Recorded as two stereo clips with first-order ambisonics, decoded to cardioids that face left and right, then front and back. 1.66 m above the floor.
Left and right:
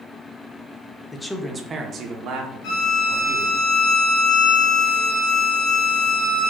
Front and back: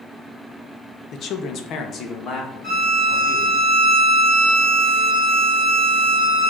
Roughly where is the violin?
Left.